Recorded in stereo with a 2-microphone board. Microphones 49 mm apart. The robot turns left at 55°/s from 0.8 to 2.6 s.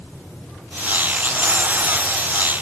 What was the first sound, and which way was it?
Only background noise.